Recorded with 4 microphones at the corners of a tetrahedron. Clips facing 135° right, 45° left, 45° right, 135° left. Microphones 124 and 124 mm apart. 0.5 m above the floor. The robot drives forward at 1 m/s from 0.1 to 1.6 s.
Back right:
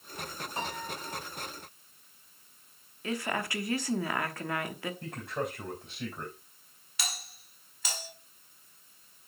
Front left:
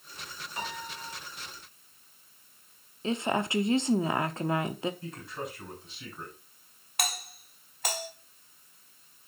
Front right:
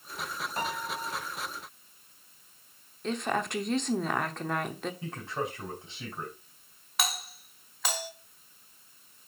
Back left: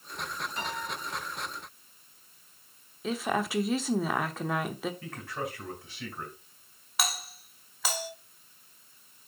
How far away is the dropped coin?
I don't hear a dropped coin.